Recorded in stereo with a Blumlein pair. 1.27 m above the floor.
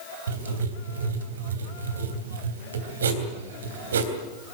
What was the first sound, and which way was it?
Writing, 65° right.